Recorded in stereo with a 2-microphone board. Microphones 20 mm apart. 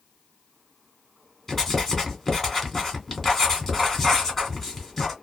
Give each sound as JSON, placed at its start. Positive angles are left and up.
{"t": 1.5, "sound": "writing", "side_deg": 20, "distance_m": 1.2}